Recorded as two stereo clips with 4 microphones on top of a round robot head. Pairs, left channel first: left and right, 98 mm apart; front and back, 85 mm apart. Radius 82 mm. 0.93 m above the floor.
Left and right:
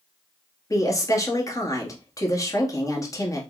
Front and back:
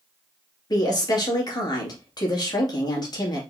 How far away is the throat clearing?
I don't hear throat clearing.